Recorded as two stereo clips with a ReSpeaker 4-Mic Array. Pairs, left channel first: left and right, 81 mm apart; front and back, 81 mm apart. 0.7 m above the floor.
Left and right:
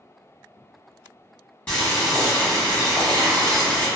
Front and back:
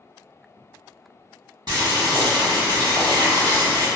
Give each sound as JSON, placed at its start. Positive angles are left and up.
{"t": 1.7, "sound": "boiling", "azimuth_deg": 165, "distance_m": 1.7}